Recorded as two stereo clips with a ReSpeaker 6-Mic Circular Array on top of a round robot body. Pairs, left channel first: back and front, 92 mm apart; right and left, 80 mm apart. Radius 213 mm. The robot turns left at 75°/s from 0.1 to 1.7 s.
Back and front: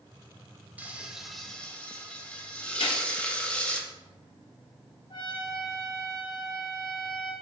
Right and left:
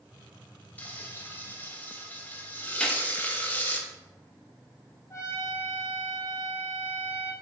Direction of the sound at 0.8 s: 50° right.